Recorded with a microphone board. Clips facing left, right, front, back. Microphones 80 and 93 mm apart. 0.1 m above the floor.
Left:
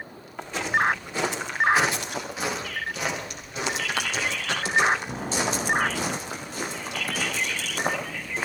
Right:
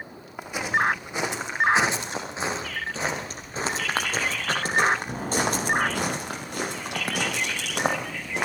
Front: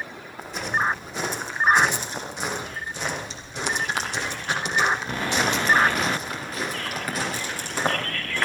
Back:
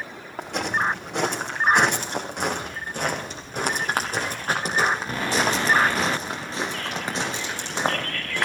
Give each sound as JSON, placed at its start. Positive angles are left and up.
{"t": 0.4, "sound": "footsteps", "azimuth_deg": -165, "distance_m": 8.5}